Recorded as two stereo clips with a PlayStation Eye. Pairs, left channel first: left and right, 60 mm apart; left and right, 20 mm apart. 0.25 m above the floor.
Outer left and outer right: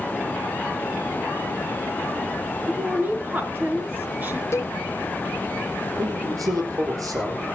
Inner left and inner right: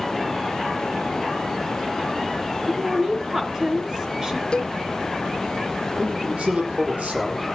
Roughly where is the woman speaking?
Right.